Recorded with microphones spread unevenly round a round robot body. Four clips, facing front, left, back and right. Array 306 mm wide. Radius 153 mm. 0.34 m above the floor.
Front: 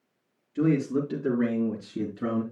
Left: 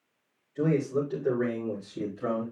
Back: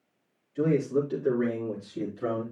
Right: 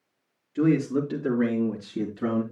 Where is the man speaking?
45° right, 5 m; by 2.4 s 35° right, 4 m.